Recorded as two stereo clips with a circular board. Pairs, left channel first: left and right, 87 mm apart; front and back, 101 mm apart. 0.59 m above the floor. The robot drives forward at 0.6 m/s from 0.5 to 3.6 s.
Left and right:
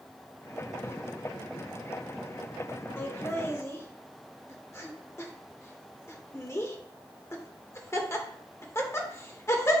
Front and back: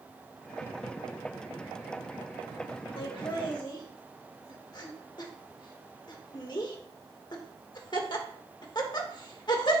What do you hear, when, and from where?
3.0 s laughter: 30° left, 1.8 m; by 9.8 s 35° left, 1.5 m